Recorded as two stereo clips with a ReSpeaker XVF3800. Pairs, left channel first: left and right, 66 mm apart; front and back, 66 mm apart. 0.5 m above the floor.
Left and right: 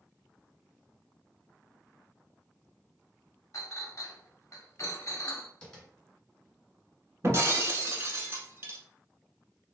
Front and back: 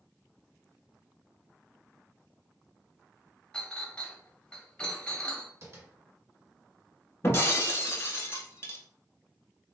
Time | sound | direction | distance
3.5 | a clink | 70° left | 0.7 m
5.6 | tapping | 160° left | 1.7 m
7.2 | breaking glass | 45° right | 0.8 m